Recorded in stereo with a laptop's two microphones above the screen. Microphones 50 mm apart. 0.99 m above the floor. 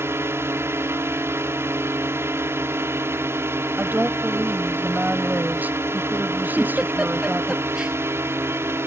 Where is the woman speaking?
40° right (ahead or behind).